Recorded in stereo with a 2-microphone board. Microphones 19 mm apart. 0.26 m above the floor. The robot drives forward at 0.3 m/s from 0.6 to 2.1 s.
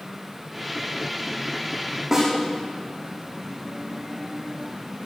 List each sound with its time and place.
2.1 s a snare drum: 20° right (ahead or behind), 7 m